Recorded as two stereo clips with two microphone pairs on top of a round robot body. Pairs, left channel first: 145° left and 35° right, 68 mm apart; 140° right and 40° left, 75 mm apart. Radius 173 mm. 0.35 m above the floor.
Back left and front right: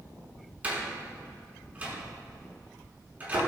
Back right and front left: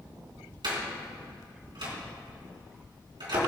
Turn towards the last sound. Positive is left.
turn(degrees=30)